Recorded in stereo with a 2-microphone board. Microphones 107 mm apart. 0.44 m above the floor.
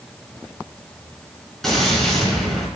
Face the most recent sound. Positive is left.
turn(degrees=5)  # may be behind; listen again after turning